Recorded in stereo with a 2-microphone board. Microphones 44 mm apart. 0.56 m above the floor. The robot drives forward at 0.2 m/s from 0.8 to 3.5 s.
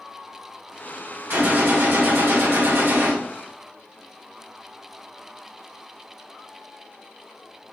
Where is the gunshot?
60° right (ahead or behind), 1.7 m.